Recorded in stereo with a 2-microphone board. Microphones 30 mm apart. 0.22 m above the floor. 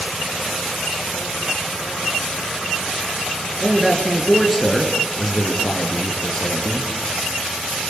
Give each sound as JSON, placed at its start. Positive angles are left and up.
{"t": 3.6, "sound": "a man speaking", "side_deg": -5, "distance_m": 4.0}